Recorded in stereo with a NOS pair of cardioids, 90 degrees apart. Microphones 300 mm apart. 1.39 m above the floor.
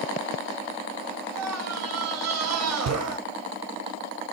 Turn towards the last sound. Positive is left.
turn(degrees=-60)